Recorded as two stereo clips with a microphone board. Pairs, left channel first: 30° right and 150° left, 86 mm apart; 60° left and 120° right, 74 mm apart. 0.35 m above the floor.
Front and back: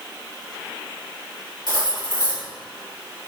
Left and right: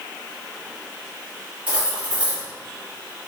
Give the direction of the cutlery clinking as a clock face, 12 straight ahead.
2 o'clock.